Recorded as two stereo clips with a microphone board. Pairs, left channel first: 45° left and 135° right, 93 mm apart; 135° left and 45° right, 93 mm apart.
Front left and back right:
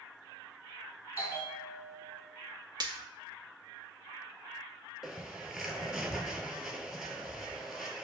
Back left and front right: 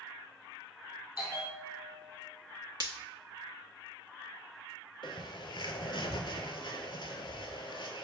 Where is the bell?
90° left, 1.7 m.